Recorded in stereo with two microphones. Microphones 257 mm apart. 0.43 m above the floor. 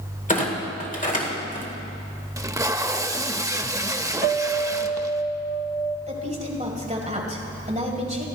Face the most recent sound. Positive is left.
turn(degrees=-30)  # may be behind; listen again after turning